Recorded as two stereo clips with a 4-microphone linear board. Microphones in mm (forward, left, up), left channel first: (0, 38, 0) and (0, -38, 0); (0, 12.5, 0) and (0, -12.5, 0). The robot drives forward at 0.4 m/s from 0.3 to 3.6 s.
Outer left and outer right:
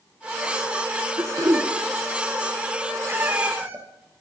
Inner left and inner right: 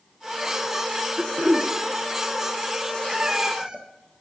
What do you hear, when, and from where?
1.2 s throat clearing: 50° right (ahead or behind), 1.9 m; by 1.7 s 55° right (ahead or behind), 1.7 m
3.1 s a cat meowing: 30° right (ahead or behind), 1.8 m; by 3.9 s 25° right (ahead or behind), 1.9 m